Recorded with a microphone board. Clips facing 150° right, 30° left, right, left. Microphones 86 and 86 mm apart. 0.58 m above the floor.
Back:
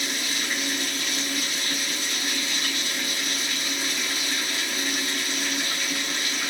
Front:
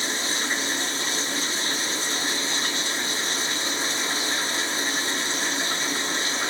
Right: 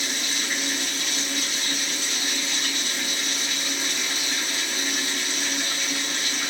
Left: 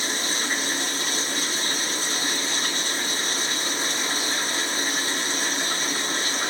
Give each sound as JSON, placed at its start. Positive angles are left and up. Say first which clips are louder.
{"t": 0.0, "sound": "running water", "louder": "front 2 dB, left 3 dB", "azimuth_deg": 65, "distance_m": 1.0}